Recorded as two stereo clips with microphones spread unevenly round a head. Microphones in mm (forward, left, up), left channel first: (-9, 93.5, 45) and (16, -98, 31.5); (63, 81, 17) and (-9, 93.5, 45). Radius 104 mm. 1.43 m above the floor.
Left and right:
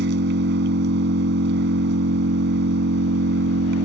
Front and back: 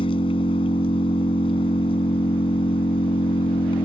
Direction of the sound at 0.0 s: 45° right.